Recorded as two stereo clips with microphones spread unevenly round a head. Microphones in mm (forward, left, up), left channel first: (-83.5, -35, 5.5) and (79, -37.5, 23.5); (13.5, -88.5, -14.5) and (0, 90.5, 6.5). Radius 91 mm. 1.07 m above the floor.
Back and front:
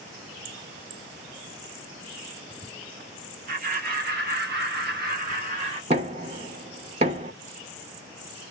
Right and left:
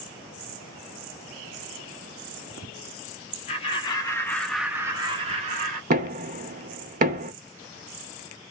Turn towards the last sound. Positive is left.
turn(degrees=55)